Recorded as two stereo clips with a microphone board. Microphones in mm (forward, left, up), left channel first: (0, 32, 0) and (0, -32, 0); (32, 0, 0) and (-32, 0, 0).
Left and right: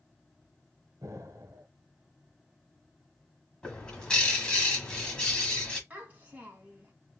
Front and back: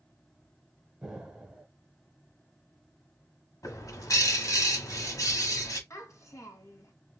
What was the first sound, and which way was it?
An explosion, 100° right.